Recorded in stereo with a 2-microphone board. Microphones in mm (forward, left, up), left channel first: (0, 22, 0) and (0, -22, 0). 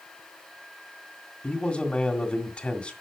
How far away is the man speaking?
About 1.8 m.